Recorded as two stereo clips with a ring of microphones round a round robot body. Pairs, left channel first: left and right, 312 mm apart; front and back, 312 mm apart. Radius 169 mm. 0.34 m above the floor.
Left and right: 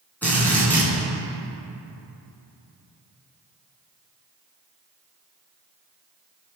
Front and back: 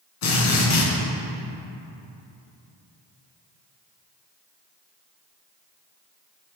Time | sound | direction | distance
0.2 | a drill | 5° left | 4 m